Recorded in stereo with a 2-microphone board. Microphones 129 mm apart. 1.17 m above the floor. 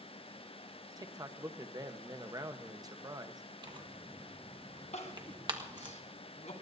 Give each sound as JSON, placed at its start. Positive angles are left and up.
{"t": 1.0, "sound": "a man speaking", "side_deg": -30, "distance_m": 1.0}
{"t": 3.6, "sound": "tearing paper", "side_deg": -35, "distance_m": 1.4}
{"t": 4.9, "sound": "crying", "side_deg": 60, "distance_m": 2.0}